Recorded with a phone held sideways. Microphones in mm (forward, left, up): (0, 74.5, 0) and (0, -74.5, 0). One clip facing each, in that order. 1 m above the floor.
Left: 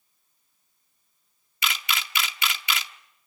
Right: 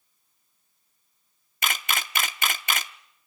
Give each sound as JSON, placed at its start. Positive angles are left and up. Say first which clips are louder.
{"t": 1.6, "sound": "a camera shutter", "louder": "right 1 dB", "side_deg": -45, "distance_m": 0.6}